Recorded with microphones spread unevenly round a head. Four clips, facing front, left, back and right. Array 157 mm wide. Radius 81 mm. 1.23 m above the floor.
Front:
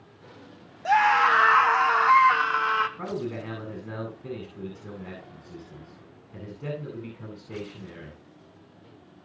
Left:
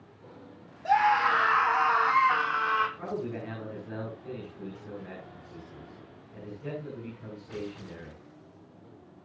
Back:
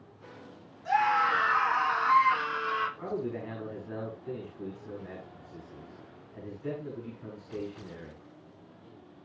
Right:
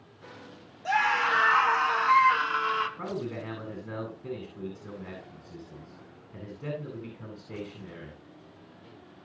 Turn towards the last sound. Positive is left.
turn(degrees=-25)